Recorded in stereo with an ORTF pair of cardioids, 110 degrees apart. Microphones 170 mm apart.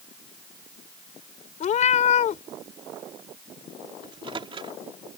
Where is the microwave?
30° right.